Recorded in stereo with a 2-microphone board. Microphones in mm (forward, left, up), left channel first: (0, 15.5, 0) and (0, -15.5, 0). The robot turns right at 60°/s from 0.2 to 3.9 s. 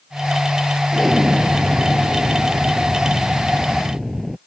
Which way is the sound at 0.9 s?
175° left.